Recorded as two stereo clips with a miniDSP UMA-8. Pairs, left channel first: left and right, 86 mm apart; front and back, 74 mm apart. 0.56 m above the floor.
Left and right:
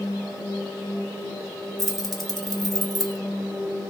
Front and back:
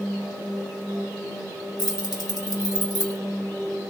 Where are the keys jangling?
5° left, 0.8 m.